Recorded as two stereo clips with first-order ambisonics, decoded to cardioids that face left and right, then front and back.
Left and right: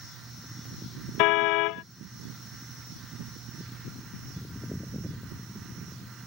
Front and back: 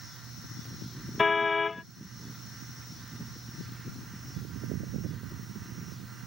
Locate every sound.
1.2 s a car horn: 75° left